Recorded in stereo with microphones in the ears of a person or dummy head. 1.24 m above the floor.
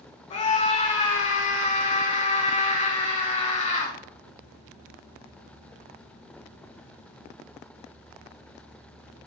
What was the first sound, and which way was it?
A scream, 35° left (ahead or behind).